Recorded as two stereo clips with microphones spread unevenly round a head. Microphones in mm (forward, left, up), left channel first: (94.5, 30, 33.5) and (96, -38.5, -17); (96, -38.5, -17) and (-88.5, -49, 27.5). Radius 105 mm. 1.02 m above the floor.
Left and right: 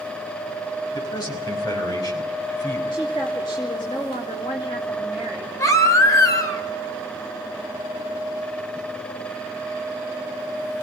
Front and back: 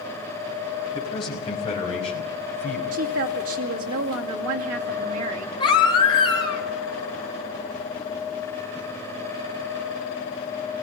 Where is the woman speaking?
160° left, 2.5 m.